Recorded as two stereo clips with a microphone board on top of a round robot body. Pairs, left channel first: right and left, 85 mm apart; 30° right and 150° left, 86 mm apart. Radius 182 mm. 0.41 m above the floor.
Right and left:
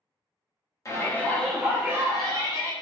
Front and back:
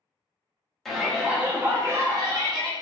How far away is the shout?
About 1.4 m.